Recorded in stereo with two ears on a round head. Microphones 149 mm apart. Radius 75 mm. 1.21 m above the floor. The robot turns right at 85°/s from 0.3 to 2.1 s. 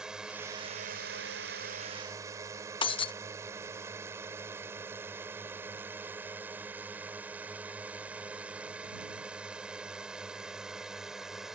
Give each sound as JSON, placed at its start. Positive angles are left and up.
{"t": 0.0, "sound": "a drone", "side_deg": -5}
{"t": 2.8, "sound": "breaking glass", "side_deg": 30}